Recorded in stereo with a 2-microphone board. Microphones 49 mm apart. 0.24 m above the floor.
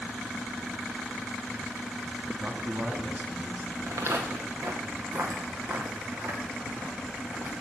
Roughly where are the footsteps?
Right.